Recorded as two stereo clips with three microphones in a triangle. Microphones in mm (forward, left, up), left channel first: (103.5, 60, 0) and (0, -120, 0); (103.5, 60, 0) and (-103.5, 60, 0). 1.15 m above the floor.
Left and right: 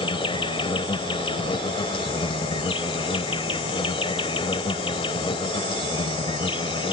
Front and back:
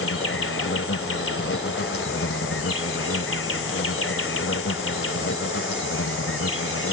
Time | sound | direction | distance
0.0 | an insect | 5° right | ?